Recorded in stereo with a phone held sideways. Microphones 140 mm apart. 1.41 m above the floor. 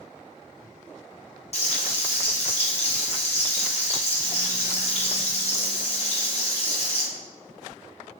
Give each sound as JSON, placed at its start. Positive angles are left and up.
{"t": 1.5, "sound": "frying", "side_deg": 50, "distance_m": 0.7}